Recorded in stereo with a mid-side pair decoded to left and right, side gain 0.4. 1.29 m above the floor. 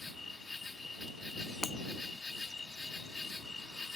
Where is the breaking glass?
40° left.